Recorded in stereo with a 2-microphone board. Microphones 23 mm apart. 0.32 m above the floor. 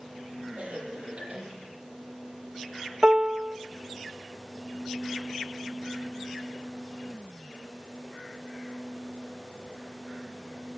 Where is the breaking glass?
I don't hear breaking glass.